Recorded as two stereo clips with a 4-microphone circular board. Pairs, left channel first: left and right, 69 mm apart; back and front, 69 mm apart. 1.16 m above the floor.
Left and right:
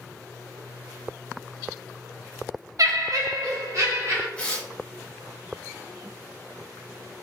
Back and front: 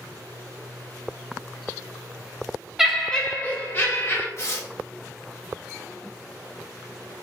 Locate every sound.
2.8 s laughter: 80° right, 0.6 m; by 4.3 s 125° right, 1.4 m
4.4 s tearing paper: 155° left, 0.6 m